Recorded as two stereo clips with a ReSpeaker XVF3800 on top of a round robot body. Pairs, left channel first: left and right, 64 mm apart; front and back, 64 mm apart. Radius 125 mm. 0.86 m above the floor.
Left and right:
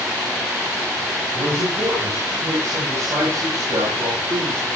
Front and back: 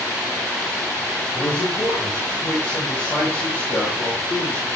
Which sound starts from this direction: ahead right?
A man speaking, at 1.4 s.